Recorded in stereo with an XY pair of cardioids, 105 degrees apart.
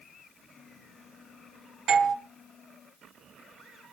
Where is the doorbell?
70° right, 1.7 m.